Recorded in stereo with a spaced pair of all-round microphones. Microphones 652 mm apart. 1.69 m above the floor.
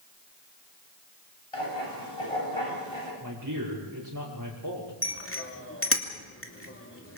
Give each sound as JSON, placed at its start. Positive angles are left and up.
{"t": 1.5, "sound": "writing", "side_deg": 50, "distance_m": 9.0}
{"t": 3.2, "sound": "a man speaking", "side_deg": -30, "distance_m": 6.5}
{"t": 5.0, "sound": "a bicycle bell", "side_deg": 20, "distance_m": 2.5}